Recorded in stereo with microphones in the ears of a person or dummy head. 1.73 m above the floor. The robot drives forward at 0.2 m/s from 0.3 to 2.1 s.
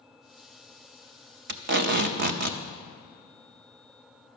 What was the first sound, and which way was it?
Tape being pulled, 55° right (ahead or behind).